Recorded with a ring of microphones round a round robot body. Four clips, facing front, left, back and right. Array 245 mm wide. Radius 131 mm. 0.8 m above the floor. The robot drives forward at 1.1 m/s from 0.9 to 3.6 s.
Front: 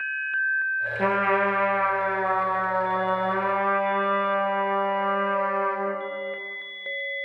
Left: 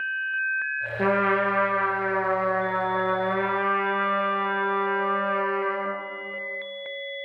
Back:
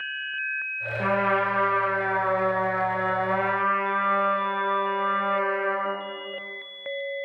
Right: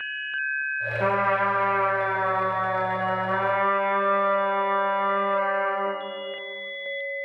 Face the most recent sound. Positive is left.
turn(degrees=115)